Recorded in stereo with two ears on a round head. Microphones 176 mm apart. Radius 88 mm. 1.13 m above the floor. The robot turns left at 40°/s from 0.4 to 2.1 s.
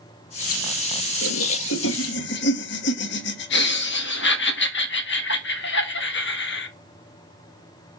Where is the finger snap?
No finger snap in this recording.